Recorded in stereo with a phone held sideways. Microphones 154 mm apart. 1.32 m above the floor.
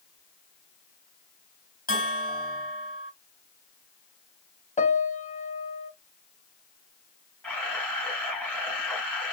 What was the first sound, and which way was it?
A bell, 65° left (ahead or behind).